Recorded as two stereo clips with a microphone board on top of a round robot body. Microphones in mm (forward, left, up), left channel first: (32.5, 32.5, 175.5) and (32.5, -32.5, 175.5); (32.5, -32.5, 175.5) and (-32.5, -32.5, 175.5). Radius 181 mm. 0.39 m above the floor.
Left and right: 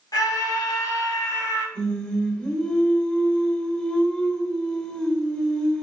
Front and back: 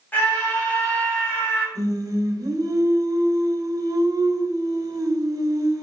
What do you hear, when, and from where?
0.1 s a scream: 65° left, 4 m
1.8 s singing: 160° left, 1.7 m